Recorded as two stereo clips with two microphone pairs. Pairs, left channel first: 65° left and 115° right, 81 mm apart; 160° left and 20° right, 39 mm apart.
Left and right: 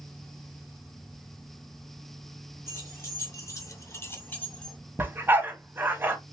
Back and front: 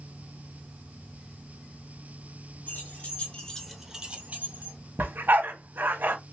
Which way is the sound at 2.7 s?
120° left.